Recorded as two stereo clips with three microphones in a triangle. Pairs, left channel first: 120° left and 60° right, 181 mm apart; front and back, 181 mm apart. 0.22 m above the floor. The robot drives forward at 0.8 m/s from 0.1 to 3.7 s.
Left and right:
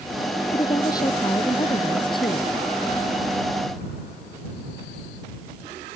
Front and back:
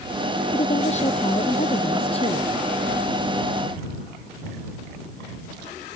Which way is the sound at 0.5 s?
50° left.